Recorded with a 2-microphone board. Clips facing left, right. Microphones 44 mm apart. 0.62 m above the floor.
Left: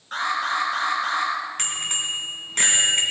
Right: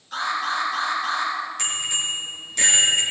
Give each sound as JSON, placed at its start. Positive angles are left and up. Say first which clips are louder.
{"t": 0.1, "sound": "an alarm", "louder": "left 1 dB", "side_deg": 40, "distance_m": 7.0}
{"t": 1.6, "sound": "a bicycle bell", "louder": "right 1 dB", "side_deg": 45, "distance_m": 4.0}